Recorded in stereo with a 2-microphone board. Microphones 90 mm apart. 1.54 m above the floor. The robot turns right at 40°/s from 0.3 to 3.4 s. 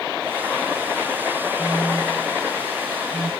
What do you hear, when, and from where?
1.6 s a phone buzzing: 5° left (ahead or behind); by 3.3 s 50° right (ahead or behind)